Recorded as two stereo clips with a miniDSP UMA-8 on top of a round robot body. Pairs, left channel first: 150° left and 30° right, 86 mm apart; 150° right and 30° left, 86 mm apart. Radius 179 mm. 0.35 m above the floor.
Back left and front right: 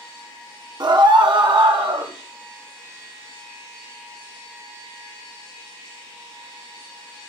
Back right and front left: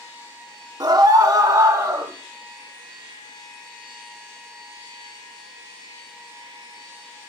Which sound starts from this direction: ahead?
A scream, at 0.8 s.